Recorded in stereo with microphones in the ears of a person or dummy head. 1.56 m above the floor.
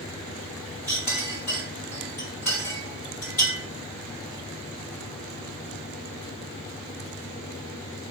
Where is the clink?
10° left (ahead or behind), 1.3 m.